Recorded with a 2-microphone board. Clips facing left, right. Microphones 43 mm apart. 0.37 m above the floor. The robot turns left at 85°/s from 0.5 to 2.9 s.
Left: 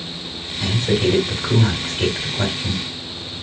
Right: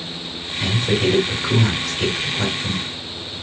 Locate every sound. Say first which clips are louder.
0.6 s a man speaking: even; 25° right (ahead or behind), 1.5 m; by 2.8 s 20° left (ahead or behind), 1.5 m